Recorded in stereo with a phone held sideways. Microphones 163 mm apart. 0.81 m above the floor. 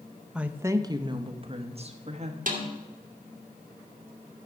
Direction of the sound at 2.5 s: 60° right (ahead or behind).